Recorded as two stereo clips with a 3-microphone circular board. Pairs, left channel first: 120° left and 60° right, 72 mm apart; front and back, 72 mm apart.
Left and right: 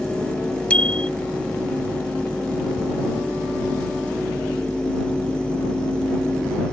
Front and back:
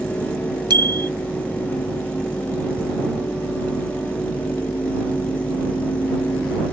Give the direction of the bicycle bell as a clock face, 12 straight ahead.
6 o'clock.